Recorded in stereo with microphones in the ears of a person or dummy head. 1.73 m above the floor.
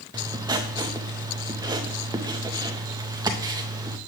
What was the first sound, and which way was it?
Writing, 20° right (ahead or behind).